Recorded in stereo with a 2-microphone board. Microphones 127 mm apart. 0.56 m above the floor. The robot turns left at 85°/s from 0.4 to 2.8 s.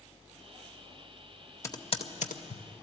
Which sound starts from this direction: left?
Typing on a keyboard, at 1.6 s.